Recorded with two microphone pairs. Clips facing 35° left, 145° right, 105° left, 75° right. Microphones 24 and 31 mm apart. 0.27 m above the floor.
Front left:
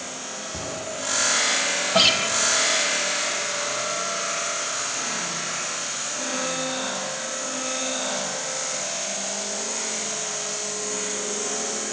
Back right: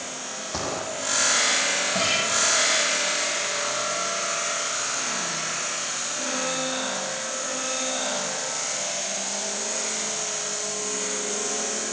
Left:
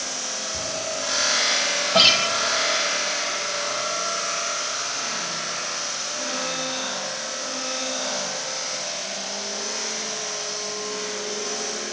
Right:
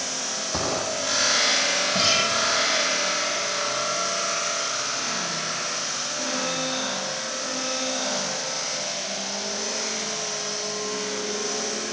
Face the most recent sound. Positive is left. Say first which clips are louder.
# front left 9 dB, left 8 dB
turn(degrees=65)